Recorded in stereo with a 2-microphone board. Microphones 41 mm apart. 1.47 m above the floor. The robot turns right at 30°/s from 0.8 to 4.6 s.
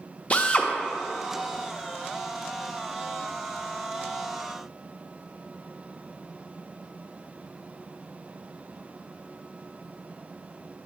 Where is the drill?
30° left (ahead or behind), 0.6 m.